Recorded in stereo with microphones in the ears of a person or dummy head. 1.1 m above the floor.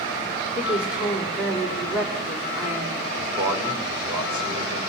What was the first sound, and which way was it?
A woman speaking, 5° right (ahead or behind).